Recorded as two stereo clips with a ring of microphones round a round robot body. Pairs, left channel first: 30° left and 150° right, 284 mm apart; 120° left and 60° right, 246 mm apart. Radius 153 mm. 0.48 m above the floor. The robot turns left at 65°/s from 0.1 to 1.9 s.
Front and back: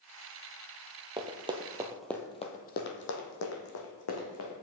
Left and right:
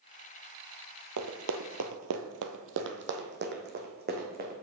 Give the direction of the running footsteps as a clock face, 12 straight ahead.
3 o'clock.